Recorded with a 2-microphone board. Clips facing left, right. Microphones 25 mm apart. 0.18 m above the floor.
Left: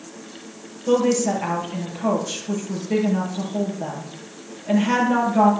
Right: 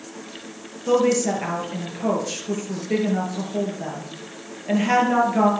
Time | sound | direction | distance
0.9 | a woman speaking | 15° right (ahead or behind) | 4 m